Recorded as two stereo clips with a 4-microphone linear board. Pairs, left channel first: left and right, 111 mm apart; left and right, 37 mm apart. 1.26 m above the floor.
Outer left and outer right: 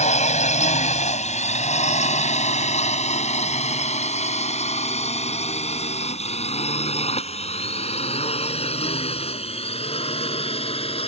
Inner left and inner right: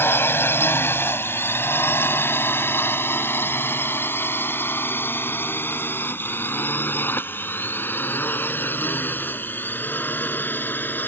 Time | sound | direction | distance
0.0 | a drone | 80° left | ?